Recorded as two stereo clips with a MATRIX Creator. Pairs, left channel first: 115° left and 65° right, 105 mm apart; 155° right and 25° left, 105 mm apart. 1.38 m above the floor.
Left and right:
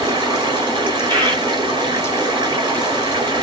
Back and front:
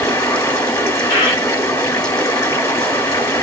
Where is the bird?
100° right, 1.8 m.